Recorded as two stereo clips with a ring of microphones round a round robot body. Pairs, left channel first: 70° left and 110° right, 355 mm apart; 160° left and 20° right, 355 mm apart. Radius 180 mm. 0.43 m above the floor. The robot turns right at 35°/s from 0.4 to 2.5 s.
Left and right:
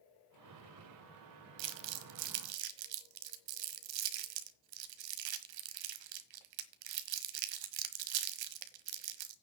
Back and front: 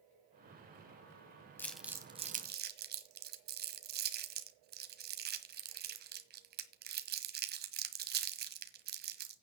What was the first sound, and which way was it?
Crumpling, 120° right.